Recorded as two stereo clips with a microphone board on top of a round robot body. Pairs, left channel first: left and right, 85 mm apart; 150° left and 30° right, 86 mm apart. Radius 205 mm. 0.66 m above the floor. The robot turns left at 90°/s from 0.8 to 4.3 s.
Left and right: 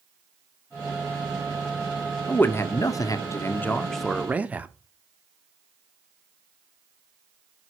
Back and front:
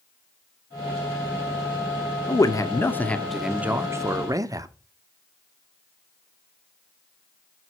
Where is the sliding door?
No sliding door in this recording.